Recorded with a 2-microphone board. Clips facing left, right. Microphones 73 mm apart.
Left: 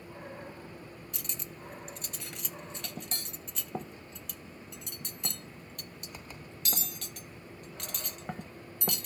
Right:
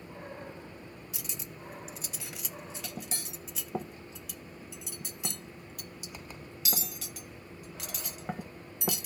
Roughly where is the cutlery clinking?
Centre.